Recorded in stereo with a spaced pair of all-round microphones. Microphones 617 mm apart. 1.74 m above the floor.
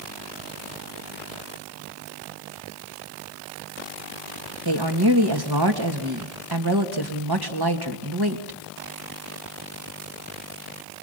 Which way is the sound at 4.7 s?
35° right (ahead or behind).